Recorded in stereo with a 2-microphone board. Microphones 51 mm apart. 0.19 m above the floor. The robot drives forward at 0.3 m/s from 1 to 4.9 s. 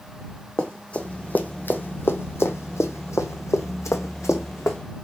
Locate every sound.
0.6 s running footsteps: 15° left (ahead or behind), 0.8 m; by 4.8 s 70° left (ahead or behind), 0.7 m